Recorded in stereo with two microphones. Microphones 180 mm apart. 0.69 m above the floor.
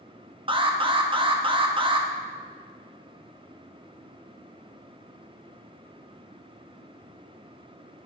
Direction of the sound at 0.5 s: 30° right (ahead or behind).